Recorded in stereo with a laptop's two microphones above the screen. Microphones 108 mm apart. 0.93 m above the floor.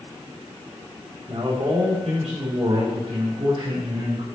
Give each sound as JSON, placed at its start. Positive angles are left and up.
{"t": 1.3, "sound": "a man speaking", "side_deg": -70, "distance_m": 2.0}